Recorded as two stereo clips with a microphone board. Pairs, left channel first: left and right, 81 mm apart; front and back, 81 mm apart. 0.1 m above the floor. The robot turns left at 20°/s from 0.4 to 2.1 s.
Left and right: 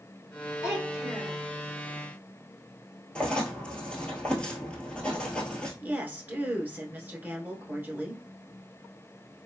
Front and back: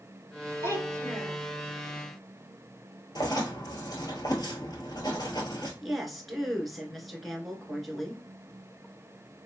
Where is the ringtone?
No ringtone in this recording.